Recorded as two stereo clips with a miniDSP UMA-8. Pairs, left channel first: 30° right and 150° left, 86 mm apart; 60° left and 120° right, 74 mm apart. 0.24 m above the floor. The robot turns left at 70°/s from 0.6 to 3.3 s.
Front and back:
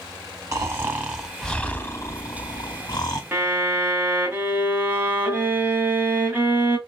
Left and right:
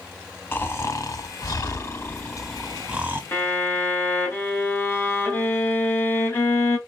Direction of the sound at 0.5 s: 110° left.